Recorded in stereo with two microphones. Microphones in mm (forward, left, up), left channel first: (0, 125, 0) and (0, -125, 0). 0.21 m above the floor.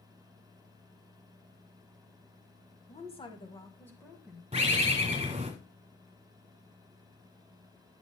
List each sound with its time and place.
2.9 s a woman speaking: 25° left (ahead or behind), 1.1 m; by 4.4 s centre (ahead or behind), 1.4 m
4.5 s a bird: 20° right (ahead or behind), 1.8 m